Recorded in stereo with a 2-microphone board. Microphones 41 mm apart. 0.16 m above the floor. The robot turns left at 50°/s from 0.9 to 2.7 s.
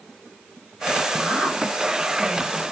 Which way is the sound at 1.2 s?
20° right (ahead or behind).